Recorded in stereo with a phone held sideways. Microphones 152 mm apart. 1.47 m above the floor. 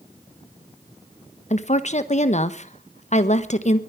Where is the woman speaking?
50° left (ahead or behind), 1.2 m.